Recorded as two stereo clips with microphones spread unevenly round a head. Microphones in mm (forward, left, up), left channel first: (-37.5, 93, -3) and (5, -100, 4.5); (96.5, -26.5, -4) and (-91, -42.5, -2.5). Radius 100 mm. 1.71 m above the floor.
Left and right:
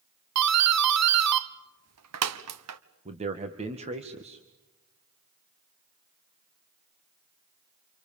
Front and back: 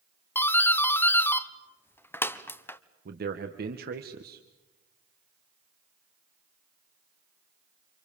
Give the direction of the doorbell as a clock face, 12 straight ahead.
2 o'clock.